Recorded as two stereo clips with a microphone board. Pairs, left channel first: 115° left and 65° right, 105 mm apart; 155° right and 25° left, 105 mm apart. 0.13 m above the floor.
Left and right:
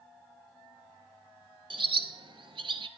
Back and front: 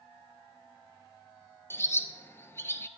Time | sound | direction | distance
1.7 | a bird | 95° right | 0.5 m